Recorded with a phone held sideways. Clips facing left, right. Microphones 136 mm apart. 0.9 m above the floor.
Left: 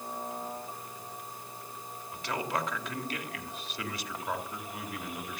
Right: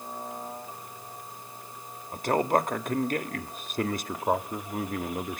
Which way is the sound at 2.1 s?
45° right (ahead or behind).